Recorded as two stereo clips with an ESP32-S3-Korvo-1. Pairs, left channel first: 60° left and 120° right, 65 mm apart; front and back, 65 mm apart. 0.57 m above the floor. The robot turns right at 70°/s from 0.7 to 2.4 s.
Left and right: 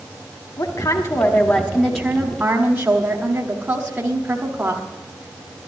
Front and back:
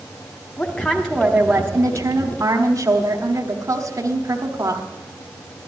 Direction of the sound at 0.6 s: 70° left.